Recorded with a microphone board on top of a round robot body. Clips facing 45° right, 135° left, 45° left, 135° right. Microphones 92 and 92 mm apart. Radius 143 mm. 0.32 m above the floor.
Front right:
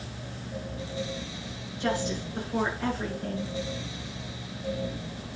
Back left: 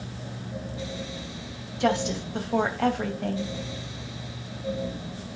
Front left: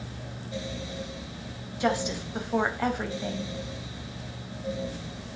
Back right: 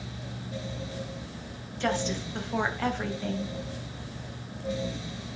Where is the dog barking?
I don't hear a dog barking.